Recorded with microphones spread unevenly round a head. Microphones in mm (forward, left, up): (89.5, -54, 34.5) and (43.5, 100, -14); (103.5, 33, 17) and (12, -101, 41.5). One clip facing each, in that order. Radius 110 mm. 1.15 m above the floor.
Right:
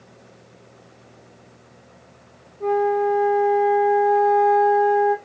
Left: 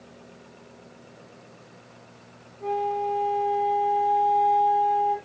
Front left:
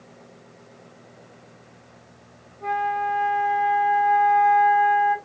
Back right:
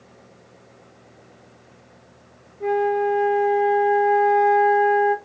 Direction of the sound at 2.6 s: 95° right.